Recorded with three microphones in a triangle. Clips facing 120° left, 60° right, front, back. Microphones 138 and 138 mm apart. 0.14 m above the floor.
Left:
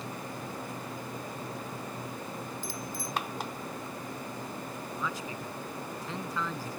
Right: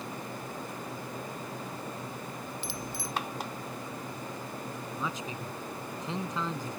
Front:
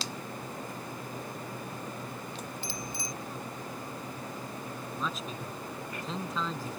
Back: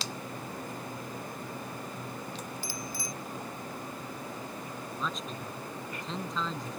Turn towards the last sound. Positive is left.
turn(degrees=-85)